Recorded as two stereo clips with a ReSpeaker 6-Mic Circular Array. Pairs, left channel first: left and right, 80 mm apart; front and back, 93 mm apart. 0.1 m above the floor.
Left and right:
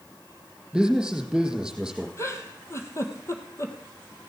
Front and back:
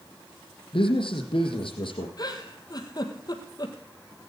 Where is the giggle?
40° left, 1.6 m.